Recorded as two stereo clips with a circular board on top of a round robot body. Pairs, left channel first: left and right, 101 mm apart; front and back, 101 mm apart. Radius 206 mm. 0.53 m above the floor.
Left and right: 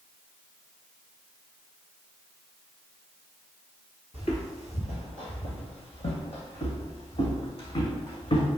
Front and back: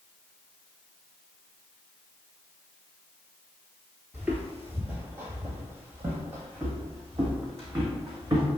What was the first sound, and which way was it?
Footsteps, 100° left.